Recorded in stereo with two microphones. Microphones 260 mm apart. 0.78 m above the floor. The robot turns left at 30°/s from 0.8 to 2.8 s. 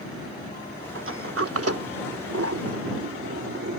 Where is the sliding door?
55° right (ahead or behind); by 3.8 s 60° right (ahead or behind).